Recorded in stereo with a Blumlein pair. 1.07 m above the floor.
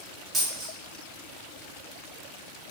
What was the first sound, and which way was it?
A dropped coin, 10° right.